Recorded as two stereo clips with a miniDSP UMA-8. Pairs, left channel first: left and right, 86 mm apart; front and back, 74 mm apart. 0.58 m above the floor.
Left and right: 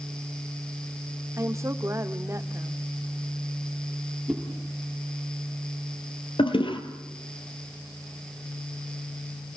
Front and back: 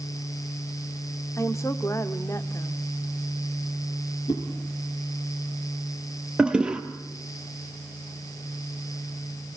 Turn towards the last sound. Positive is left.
turn(degrees=100)